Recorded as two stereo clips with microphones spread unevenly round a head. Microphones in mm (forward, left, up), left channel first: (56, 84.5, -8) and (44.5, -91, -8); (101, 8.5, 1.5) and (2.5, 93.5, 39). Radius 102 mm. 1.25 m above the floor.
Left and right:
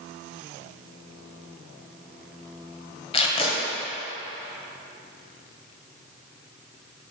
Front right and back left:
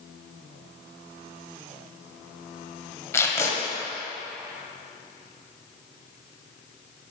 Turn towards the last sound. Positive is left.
turn(degrees=40)